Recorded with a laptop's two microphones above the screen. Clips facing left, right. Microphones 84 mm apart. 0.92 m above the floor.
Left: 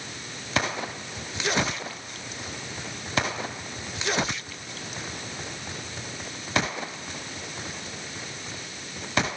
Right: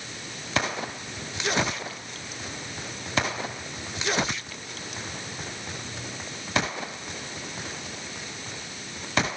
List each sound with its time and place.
Only background noise.